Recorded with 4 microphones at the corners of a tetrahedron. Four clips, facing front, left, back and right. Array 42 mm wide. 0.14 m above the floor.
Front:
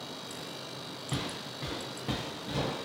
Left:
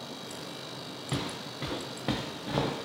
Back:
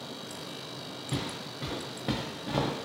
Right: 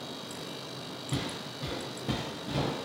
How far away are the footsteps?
About 1.1 m.